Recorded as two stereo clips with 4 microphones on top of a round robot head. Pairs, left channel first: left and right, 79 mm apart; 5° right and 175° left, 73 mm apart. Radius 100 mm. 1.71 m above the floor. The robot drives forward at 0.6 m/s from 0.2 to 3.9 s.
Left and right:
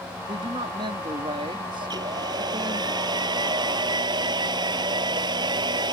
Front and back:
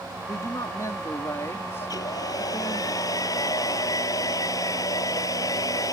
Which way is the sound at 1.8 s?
50° right.